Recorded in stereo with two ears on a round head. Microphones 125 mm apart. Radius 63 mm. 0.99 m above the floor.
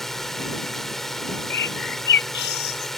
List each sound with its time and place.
0.0 s a drone: 5° left (ahead or behind)
1.5 s a bird: 85° left